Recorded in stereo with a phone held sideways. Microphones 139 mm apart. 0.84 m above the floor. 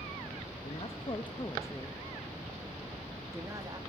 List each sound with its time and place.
0.6 s a woman speaking: 50° left (ahead or behind), 1.0 m; by 3.8 s 25° right (ahead or behind), 1.5 m